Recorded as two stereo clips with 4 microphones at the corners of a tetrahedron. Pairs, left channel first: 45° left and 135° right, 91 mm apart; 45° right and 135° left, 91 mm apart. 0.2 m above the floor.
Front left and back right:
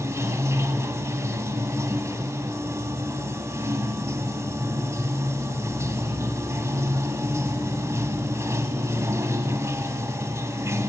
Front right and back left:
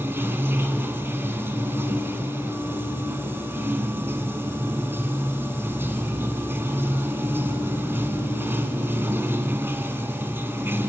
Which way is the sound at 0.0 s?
175° right.